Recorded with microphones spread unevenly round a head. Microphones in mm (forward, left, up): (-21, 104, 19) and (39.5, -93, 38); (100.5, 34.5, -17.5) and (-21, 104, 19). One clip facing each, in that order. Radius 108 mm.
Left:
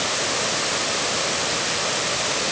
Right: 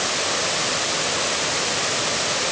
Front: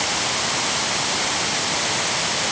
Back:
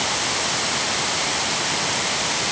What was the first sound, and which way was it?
Only background noise.